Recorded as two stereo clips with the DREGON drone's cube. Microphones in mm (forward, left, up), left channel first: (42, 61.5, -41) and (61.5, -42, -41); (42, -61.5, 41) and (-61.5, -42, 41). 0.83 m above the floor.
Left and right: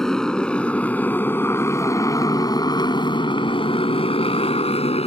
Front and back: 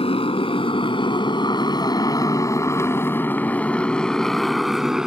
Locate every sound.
0.0 s a motorcycle: 15° left; by 5.1 s 85° left